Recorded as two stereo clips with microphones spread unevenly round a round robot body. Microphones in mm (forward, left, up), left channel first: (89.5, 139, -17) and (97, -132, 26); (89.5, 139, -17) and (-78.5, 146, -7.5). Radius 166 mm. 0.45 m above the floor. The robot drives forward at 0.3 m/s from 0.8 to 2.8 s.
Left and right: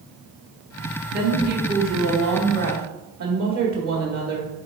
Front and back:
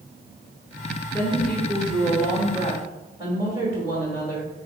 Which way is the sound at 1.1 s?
65° right.